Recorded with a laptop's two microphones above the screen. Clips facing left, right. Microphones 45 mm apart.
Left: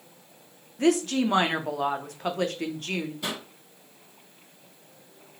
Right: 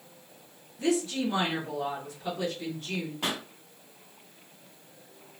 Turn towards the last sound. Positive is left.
turn(degrees=-45)  # may be behind; listen again after turning